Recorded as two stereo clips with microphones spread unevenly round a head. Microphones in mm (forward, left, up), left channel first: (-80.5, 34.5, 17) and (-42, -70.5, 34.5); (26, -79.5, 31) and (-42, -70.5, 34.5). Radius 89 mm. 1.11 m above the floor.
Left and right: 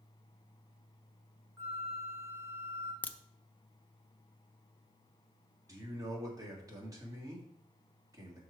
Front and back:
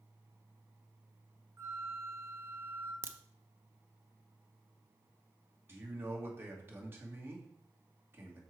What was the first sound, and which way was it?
A flute, 140° right.